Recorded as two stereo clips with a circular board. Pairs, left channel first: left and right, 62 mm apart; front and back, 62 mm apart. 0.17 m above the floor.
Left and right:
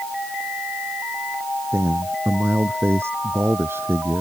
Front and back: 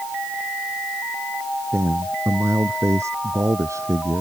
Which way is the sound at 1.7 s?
135° right.